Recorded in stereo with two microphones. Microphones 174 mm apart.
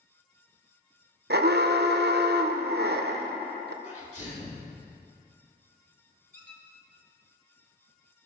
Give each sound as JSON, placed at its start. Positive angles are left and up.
{"t": 1.3, "sound": "an alarm", "side_deg": -70, "distance_m": 0.5}
{"t": 3.8, "sound": "a sneeze", "side_deg": 40, "distance_m": 2.0}
{"t": 6.3, "sound": "a squeak", "side_deg": -50, "distance_m": 1.2}